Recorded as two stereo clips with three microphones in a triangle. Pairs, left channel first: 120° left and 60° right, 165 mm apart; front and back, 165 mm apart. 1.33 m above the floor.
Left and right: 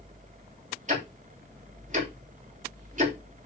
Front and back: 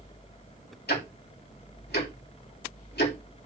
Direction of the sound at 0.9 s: 15° right.